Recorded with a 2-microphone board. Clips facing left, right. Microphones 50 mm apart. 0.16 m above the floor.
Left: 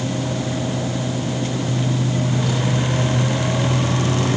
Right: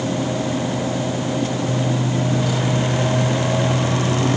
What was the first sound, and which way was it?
Only background noise.